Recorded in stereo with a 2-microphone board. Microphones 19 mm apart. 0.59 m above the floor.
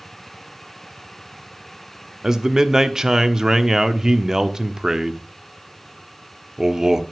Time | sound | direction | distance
2.2 | a man speaking | 30° right (ahead or behind) | 0.9 m